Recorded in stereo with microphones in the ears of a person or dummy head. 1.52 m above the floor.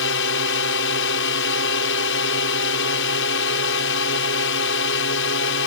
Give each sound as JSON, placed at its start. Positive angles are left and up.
{"t": 0.0, "sound": "a drone", "side_deg": 60}